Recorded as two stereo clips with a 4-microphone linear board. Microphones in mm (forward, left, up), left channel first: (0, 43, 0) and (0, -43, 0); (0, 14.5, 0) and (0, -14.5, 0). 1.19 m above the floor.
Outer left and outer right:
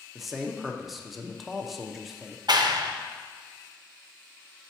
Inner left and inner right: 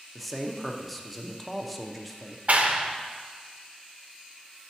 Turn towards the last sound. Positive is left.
turn(degrees=-55)  # may be behind; listen again after turning